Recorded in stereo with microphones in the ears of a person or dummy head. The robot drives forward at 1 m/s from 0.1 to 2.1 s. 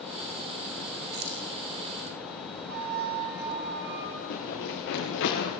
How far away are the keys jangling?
About 3 m.